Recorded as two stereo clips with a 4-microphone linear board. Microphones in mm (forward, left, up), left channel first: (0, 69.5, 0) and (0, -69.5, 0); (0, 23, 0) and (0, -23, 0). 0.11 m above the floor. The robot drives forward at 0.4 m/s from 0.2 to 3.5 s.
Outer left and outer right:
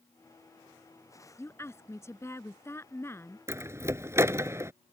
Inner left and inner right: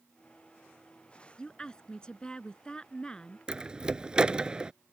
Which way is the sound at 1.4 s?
20° left (ahead or behind).